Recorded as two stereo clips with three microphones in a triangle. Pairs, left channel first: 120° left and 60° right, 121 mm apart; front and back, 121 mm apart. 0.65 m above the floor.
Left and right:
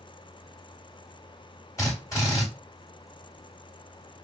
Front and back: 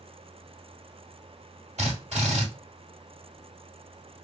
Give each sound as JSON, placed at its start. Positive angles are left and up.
{"t": 1.8, "sound": "a drill", "azimuth_deg": 180, "distance_m": 1.5}